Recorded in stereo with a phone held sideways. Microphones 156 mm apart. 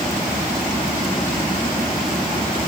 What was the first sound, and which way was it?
Only background noise.